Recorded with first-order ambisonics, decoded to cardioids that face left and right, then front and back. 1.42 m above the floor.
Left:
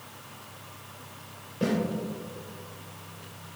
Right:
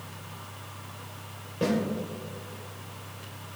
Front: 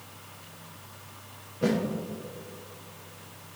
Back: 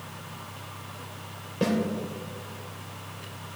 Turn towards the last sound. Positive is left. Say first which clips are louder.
# right 1 dB, even
turn(degrees=-170)